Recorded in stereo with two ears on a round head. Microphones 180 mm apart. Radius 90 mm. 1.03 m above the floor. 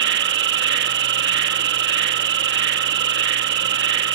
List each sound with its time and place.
0.0 s an insect: 55° right (ahead or behind)